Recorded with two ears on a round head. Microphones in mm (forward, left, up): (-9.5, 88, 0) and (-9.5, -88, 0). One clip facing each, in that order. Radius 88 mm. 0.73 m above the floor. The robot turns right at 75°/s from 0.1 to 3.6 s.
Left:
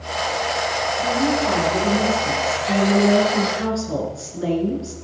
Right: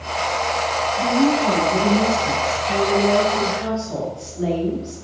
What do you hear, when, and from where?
1.0 s a woman speaking: 80° right, 8 m; by 4.9 s 120° left, 8 m